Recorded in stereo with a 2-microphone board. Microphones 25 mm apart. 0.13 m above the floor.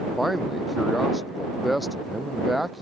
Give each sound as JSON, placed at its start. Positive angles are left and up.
{"t": 0.2, "sound": "a man speaking", "side_deg": -5}